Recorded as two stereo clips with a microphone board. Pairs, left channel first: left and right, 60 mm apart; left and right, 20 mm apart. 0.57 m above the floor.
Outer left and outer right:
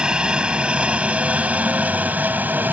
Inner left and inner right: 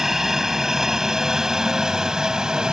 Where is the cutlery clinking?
No cutlery clinking in this recording.